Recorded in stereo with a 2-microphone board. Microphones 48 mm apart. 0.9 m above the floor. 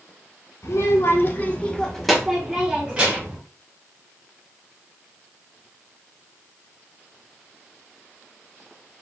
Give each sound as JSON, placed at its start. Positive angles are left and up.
{"t": 0.6, "sound": "a child speaking", "side_deg": 80, "distance_m": 1.4}